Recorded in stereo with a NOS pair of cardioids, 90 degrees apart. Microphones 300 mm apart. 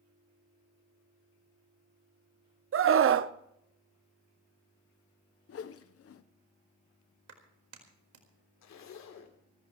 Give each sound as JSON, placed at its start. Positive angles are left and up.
{"t": 2.7, "sound": "a scream", "azimuth_deg": -45, "distance_m": 0.9}
{"t": 5.5, "sound": "a whoosh", "azimuth_deg": 50, "distance_m": 1.0}
{"t": 7.3, "sound": "a clap", "azimuth_deg": -55, "distance_m": 4.5}
{"t": 8.6, "sound": "a zipper", "azimuth_deg": 65, "distance_m": 3.0}